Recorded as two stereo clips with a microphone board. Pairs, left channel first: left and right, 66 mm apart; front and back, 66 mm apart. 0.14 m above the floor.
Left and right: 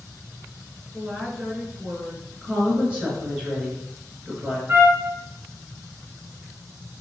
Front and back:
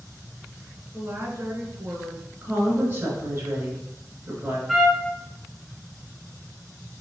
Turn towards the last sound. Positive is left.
turn(degrees=-90)